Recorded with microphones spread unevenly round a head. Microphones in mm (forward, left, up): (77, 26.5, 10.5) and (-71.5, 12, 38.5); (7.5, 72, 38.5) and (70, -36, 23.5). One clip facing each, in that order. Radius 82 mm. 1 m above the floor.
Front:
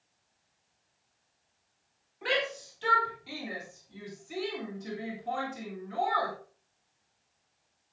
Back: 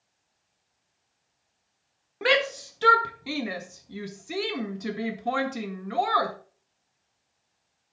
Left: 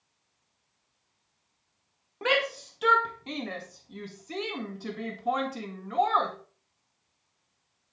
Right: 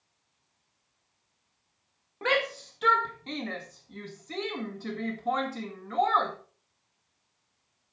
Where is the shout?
160° right, 1.9 m.